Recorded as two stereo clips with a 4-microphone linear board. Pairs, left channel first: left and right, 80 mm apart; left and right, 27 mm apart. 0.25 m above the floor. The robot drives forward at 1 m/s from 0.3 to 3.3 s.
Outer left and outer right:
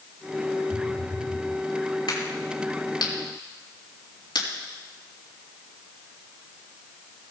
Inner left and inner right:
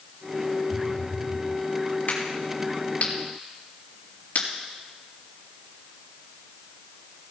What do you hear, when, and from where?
0.7 s a phone buzzing: 50° right (ahead or behind), 3.5 m; by 1.5 s 40° right (ahead or behind), 4 m
2.1 s a crack: 70° left (ahead or behind), 5.5 m; by 4.5 s 75° left (ahead or behind), 5.5 m